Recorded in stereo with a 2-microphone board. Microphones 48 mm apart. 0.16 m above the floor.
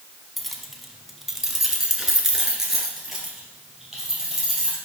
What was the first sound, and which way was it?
Keys jangling, centre (ahead or behind).